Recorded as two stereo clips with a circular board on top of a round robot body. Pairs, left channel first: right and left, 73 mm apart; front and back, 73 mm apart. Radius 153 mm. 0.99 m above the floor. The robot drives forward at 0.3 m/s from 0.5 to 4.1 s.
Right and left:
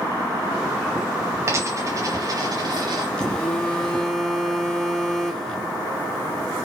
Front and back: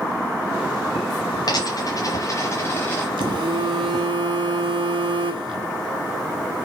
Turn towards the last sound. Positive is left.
turn(degrees=-170)